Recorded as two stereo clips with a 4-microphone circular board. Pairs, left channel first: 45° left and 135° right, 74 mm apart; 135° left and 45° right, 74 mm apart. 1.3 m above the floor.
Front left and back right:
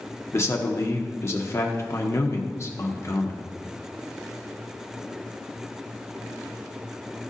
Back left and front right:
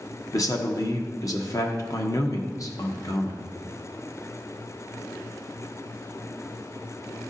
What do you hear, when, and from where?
0.3 s a man speaking: 95° left, 1.3 m